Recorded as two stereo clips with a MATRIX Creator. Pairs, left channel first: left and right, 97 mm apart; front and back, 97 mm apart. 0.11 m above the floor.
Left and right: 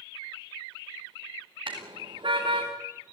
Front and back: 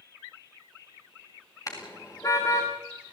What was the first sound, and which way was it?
A car horn, 55° right.